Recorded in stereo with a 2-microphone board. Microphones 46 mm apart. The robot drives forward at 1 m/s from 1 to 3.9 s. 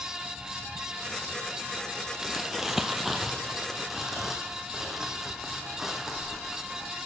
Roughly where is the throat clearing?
No throat clearing in this recording.